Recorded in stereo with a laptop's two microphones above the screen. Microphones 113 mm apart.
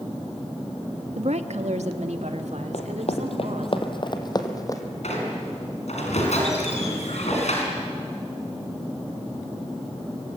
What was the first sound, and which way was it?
A woman speaking, 70° right (ahead or behind).